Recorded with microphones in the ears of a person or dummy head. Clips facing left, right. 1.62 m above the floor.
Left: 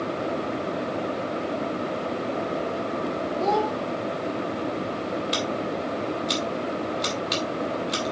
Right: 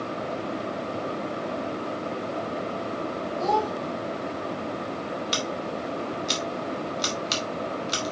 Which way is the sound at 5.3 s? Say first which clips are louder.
Left 3 dB; 15° right (ahead or behind).